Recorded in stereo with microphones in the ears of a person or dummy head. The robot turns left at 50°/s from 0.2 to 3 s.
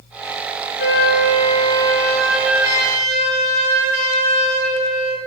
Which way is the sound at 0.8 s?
70° left.